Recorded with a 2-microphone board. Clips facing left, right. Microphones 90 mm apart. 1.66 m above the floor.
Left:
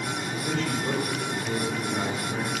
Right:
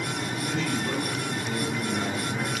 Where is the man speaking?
45° left (ahead or behind), 7 m.